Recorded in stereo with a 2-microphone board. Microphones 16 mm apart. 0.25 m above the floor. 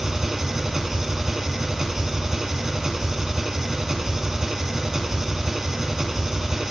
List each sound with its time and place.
0.0 s an engine running: 25° right (ahead or behind), 0.8 m